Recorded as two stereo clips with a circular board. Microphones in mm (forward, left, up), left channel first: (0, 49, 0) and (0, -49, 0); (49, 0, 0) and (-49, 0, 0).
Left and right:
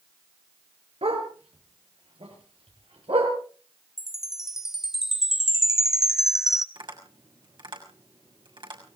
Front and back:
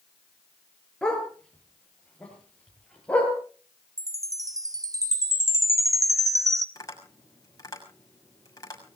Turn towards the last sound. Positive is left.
turn(degrees=-55)